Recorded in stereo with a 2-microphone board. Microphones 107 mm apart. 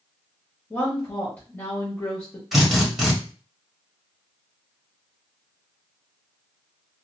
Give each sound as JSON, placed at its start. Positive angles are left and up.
{"t": 0.7, "sound": "a woman speaking", "side_deg": 20, "distance_m": 0.9}
{"t": 2.5, "sound": "a drill", "side_deg": 0, "distance_m": 1.5}